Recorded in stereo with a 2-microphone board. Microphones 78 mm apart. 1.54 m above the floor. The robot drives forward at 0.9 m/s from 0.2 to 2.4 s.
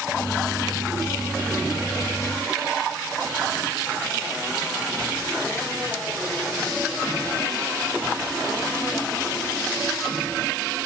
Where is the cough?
I don't hear a cough.